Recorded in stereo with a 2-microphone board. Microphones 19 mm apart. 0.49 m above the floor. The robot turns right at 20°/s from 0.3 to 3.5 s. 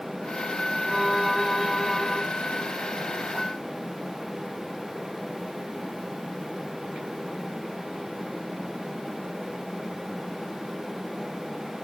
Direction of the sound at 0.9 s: 15° right (ahead or behind).